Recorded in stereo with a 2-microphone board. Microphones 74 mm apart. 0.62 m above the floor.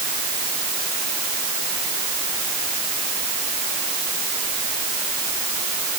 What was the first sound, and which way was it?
Only background noise.